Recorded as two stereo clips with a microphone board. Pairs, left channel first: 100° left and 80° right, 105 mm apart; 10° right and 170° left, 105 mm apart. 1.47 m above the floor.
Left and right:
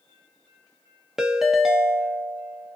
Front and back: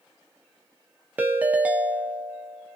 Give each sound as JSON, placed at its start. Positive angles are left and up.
{"t": 1.2, "sound": "a ringtone", "azimuth_deg": -155, "distance_m": 0.7}